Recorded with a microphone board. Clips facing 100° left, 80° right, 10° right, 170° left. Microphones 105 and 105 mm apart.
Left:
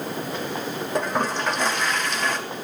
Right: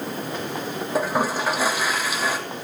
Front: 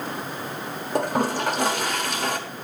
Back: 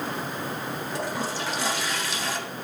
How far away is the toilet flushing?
About 1.3 m.